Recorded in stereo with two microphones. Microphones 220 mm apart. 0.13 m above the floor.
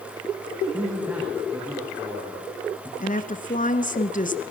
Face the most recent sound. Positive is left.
turn(degrees=40)  # may be behind; listen again after turning